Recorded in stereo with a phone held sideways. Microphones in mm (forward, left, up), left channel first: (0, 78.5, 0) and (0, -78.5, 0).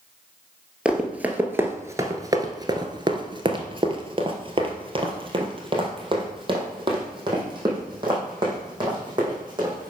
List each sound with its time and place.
0.8 s running footsteps: 5° right (ahead or behind), 1.6 m; by 9.9 s 30° right (ahead or behind), 5 m